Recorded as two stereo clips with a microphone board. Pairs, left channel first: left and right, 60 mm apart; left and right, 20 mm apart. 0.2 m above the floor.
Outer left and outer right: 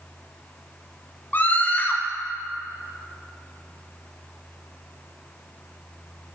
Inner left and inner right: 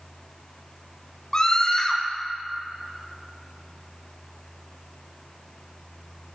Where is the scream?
25° left (ahead or behind), 1.5 m.